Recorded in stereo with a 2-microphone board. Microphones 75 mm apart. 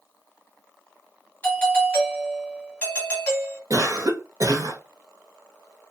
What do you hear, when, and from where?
1.4 s a doorbell: 20° left (ahead or behind), 1.9 m
3.7 s a cough: 50° right (ahead or behind), 0.7 m